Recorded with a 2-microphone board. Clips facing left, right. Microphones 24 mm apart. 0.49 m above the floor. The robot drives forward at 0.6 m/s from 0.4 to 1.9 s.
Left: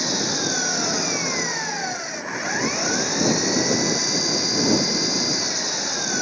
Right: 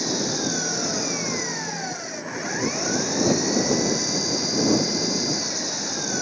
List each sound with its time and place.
0.0 s an engine running: 20° left (ahead or behind)